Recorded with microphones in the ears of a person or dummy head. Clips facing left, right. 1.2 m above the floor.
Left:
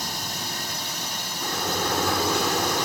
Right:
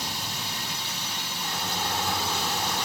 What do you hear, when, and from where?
0.0 s a drone: 45° left (ahead or behind)
1.4 s a sliding door: 55° left (ahead or behind)